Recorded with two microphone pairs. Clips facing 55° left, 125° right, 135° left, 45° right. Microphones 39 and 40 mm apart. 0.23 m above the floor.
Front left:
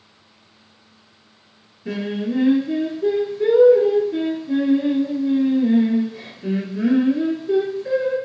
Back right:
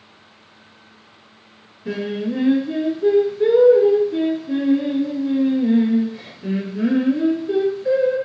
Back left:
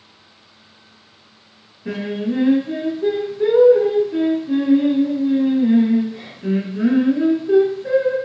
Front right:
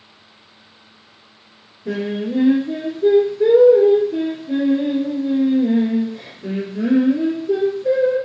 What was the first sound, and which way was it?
Singing, 160° left.